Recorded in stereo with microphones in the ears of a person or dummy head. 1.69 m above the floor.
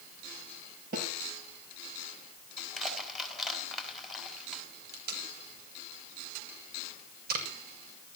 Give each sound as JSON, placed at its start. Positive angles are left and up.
{"t": 0.9, "sound": "a snare drum", "side_deg": -55, "distance_m": 7.5}
{"t": 2.6, "sound": "crushing", "side_deg": 0, "distance_m": 4.5}
{"t": 4.9, "sound": "tape being pulled", "side_deg": -60, "distance_m": 6.5}